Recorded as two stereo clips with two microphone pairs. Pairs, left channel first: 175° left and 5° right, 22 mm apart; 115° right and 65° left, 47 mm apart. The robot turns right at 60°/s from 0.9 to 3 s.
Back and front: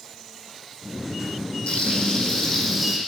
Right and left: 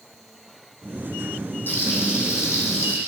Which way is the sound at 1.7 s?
155° right.